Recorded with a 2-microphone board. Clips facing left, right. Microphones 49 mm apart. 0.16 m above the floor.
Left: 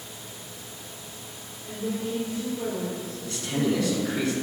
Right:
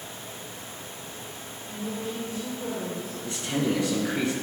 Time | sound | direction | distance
1.7 | a woman speaking | 65° left (ahead or behind) | 3.5 m
3.2 | a man speaking | 30° right (ahead or behind) | 1.4 m